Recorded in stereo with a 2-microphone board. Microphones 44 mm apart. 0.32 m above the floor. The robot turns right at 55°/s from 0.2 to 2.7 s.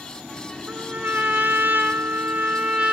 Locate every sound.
0.7 s a trumpet: 145° right, 0.8 m; by 2.9 s 35° right, 0.8 m